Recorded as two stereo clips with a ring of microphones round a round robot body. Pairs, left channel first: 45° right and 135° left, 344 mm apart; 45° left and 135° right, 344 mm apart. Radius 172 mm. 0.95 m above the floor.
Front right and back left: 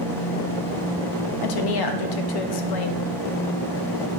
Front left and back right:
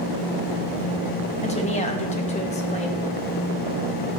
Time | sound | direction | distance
1.4 | a woman speaking | 25° right | 1.0 m